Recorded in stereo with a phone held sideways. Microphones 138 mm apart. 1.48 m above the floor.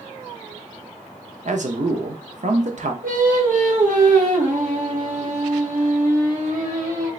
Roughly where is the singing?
Right.